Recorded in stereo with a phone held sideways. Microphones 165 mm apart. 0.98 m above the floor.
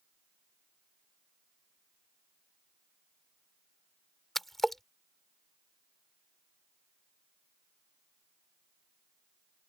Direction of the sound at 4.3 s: Centre (ahead or behind).